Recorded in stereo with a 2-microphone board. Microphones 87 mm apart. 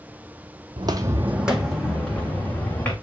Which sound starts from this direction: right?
Footsteps, at 0.8 s.